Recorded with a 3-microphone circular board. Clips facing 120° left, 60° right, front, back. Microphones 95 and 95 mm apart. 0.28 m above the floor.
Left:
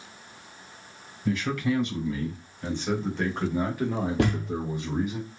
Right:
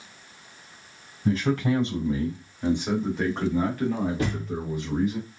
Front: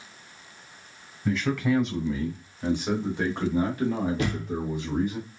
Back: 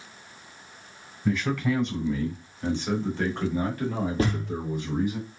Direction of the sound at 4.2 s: 130° left.